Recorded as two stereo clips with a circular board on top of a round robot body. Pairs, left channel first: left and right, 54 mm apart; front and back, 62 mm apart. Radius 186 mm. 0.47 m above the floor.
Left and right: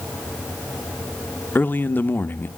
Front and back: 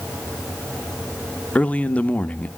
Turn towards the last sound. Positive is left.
turn(degrees=60)